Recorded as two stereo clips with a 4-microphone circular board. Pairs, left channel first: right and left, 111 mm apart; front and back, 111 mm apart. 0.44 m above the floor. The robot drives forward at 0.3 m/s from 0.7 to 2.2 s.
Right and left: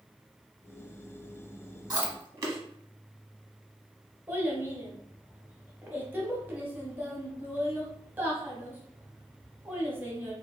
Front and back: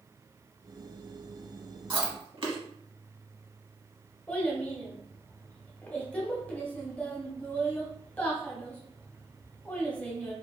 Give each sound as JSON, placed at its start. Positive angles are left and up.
{"t": 1.9, "sound": "chewing", "azimuth_deg": 140, "distance_m": 0.9}
{"t": 4.3, "sound": "a child speaking", "azimuth_deg": 55, "distance_m": 0.7}